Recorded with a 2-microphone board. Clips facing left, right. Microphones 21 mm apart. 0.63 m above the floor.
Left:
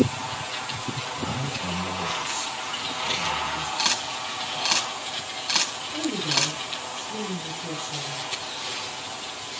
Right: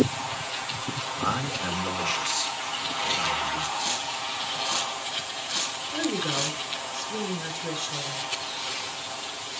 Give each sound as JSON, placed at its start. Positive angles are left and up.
{"t": 1.2, "sound": "a man speaking", "side_deg": -65, "distance_m": 6.5}
{"t": 3.8, "sound": "a camera shutter", "side_deg": 60, "distance_m": 4.0}
{"t": 5.9, "sound": "a woman speaking", "side_deg": -75, "distance_m": 6.0}